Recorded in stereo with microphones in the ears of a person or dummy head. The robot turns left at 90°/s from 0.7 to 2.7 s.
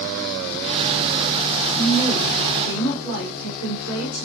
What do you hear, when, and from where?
1.8 s a woman speaking: 175° left, 4.5 m; by 4.2 s 90° left, 4.5 m